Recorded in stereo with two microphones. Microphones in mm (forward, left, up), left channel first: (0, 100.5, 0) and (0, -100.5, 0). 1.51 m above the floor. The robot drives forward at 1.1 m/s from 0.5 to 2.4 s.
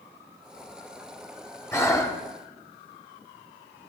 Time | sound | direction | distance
1.7 | breathing | 10° left (ahead or behind) | 1.5 m